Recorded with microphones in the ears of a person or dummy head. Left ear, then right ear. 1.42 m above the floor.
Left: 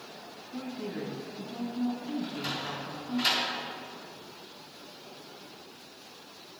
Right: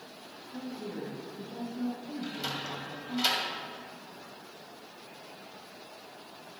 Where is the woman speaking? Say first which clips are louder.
Left 2 dB; centre (ahead or behind), 2.5 m.